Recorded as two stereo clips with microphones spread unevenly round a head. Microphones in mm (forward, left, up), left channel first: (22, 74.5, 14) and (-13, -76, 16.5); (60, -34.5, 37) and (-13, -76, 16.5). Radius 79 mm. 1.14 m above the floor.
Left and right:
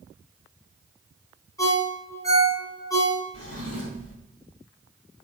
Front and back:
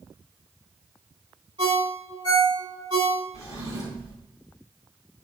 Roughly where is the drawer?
Behind left.